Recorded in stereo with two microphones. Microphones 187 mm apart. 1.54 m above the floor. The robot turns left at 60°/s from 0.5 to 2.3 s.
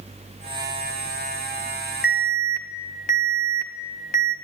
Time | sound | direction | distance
2.0 | an alarm | 60° left (ahead or behind) | 1.7 m